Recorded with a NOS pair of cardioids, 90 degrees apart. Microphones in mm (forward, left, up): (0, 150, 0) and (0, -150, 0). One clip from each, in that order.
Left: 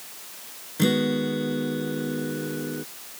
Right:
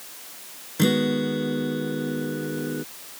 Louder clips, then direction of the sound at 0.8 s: Right 1 dB; 25° right.